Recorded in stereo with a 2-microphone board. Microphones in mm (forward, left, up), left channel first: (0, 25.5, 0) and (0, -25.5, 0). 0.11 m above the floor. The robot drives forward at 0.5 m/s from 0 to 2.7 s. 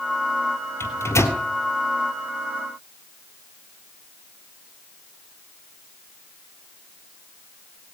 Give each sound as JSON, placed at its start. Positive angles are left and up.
{"t": 0.8, "sound": "a microwave", "side_deg": 60, "distance_m": 1.9}